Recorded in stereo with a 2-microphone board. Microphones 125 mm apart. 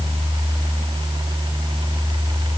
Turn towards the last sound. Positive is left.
No sound to turn to.